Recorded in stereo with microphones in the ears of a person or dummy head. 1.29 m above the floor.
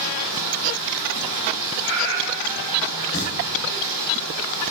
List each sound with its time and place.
0.0 s running water: 45° right (ahead or behind), 2.5 m
1.8 s a cat meowing: 30° right (ahead or behind), 1.9 m
3.1 s singing: 65° left (ahead or behind), 1.8 m